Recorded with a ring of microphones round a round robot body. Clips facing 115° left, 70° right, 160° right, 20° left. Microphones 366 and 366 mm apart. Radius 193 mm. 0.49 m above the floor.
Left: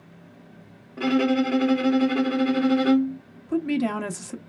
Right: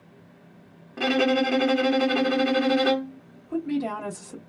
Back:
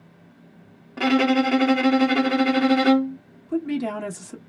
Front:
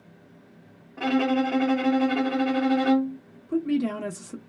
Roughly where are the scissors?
No scissors in this recording.